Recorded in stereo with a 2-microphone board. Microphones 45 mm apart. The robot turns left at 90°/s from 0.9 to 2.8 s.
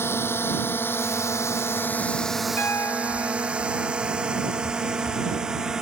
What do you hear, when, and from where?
0.0 s a drone: 65° left (ahead or behind); by 5.8 s 15° right (ahead or behind)
2.6 s a piano: 55° left (ahead or behind); by 4.0 s 75° left (ahead or behind)